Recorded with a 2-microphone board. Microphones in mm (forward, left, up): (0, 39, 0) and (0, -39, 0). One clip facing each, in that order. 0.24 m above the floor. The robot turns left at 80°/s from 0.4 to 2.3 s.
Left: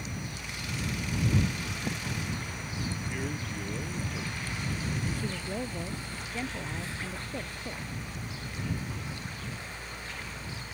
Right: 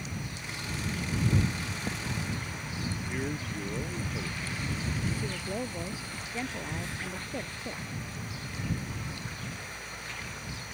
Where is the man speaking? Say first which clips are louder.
Right 1 dB; 15° right (ahead or behind).